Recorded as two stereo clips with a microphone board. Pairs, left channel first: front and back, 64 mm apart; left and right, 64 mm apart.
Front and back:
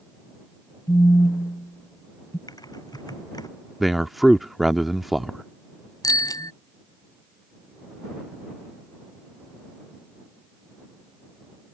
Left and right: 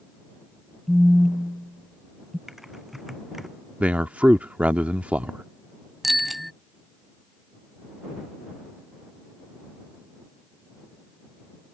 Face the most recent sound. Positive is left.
turn(degrees=0)